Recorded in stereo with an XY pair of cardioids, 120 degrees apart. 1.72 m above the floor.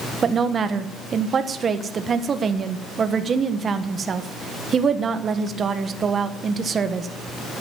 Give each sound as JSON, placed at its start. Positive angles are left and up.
{"t": 0.2, "sound": "a woman speaking", "azimuth_deg": -35, "distance_m": 1.4}